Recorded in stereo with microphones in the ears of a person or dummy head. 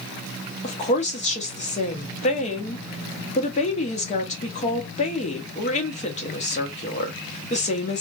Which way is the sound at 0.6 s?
35° left (ahead or behind).